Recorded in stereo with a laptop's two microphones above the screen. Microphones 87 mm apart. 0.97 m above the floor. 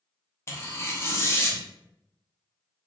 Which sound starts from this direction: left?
Tearing paper, at 0.5 s.